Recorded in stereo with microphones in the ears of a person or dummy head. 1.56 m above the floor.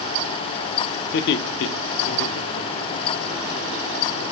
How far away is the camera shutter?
I don't hear a camera shutter.